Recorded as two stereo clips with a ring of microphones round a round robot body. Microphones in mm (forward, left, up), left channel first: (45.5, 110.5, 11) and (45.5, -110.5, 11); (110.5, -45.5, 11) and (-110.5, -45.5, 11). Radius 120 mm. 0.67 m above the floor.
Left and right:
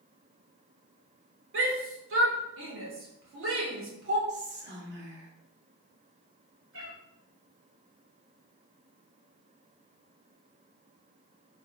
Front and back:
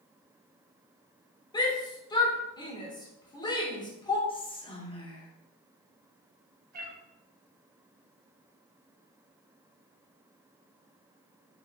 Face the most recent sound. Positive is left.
turn(degrees=-135)